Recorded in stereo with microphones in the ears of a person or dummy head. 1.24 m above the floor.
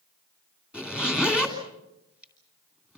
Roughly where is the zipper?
Centre.